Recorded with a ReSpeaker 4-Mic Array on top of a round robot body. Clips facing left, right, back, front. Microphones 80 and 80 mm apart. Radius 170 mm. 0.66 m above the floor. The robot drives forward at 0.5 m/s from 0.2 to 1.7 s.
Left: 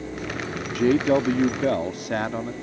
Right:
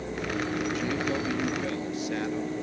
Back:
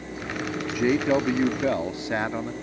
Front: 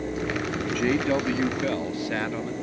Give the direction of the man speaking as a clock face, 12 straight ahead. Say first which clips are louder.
Left 9 dB, back 3 dB; 9 o'clock.